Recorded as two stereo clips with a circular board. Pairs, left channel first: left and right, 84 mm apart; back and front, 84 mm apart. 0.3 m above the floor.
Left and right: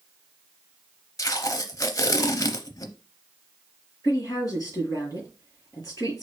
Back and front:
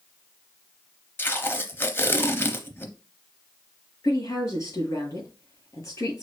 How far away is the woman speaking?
About 3 m.